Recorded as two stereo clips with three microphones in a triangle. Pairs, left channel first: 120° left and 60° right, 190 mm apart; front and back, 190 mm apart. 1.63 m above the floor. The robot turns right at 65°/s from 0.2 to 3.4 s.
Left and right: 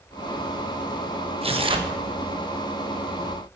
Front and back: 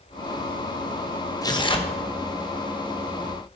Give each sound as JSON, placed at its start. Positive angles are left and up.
{"t": 1.4, "sound": "tearing paper", "azimuth_deg": -55, "distance_m": 0.9}